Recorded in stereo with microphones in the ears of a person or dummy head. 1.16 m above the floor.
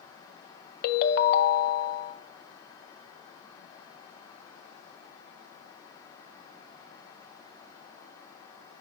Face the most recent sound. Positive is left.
turn(degrees=55)  # may be behind; listen again after turning